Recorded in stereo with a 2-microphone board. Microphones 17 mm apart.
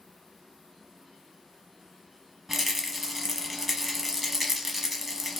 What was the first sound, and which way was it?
A rattle, 15° right (ahead or behind).